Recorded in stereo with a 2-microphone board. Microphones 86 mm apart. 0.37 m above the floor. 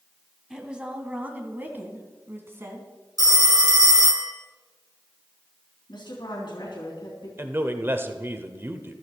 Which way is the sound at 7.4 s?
30° right (ahead or behind).